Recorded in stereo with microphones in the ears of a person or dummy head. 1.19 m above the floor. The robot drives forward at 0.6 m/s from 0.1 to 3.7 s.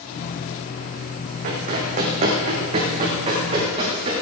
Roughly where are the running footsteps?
Right.